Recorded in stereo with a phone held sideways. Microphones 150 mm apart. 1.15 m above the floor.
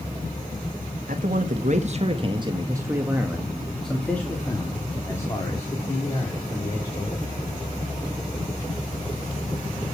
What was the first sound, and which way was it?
A man speaking, 70° right (ahead or behind).